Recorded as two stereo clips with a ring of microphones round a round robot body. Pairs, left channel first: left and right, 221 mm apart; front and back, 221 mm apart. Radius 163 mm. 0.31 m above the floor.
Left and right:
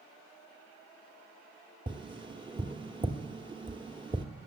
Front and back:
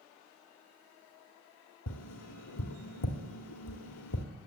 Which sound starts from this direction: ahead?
Tapping, at 1.9 s.